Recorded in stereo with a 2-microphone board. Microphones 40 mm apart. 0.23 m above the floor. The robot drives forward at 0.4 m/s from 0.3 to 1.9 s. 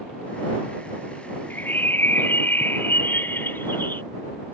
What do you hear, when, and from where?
1.5 s a bird: 55° left (ahead or behind); by 4.0 s 60° left (ahead or behind)